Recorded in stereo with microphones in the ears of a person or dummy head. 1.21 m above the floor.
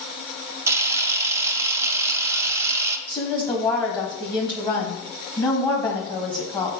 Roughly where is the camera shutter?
Centre.